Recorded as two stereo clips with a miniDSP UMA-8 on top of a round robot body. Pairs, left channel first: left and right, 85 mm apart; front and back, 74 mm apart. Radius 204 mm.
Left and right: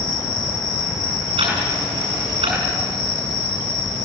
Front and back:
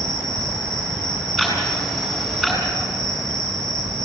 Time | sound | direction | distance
0.0 | an insect | 140° left | 5 m
1.4 | ticking | 95° right | 7.5 m